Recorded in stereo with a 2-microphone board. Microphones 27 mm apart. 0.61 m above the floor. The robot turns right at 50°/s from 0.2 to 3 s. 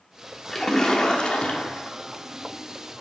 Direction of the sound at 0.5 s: 10° left.